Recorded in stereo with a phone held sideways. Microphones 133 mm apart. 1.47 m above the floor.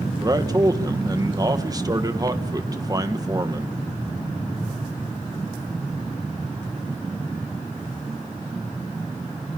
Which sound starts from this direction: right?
A man speaking, at 0.2 s.